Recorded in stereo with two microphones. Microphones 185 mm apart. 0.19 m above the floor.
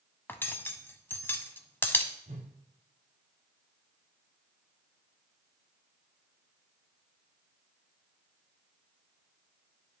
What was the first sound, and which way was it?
Cutlery clinking, 10° left (ahead or behind).